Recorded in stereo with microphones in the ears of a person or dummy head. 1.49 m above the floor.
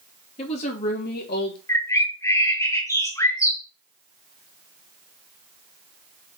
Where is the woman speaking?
40° left (ahead or behind), 2.5 m; by 1.6 s 65° left (ahead or behind), 3 m.